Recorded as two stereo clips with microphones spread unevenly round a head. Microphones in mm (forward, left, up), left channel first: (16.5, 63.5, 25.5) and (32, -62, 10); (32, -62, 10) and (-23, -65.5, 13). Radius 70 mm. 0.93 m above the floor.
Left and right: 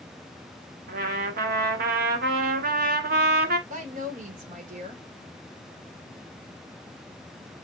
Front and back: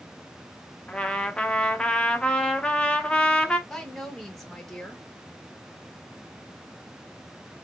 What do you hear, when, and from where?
0.9 s a trumpet: 70° right, 1.0 m
3.7 s a woman speaking: 80° right, 1.9 m